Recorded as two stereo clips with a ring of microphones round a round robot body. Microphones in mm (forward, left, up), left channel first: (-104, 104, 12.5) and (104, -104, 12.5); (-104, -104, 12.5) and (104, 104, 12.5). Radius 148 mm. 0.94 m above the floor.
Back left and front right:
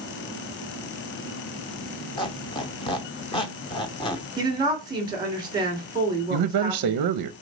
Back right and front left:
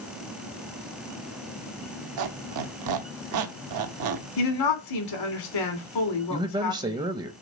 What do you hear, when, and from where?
2.2 s a squeak: 65° left, 0.8 m
4.4 s a woman speaking: 120° right, 2.5 m
6.3 s a man speaking: 30° right, 0.5 m